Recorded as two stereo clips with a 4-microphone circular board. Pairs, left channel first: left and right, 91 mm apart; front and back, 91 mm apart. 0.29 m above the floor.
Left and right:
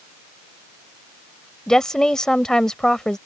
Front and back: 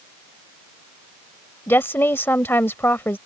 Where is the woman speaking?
15° left.